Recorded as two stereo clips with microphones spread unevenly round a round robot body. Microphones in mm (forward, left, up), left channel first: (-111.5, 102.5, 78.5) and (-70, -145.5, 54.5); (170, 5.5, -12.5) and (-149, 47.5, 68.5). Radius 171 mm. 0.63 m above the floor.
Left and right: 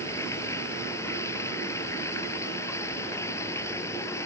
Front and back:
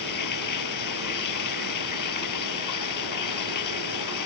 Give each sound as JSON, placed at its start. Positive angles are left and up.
{"t": 0.0, "sound": "running water", "azimuth_deg": 20}